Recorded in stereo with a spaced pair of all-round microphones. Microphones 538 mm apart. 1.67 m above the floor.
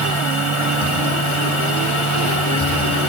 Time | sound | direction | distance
0.0 | a machine running | 60° left (ahead or behind) | 2.5 m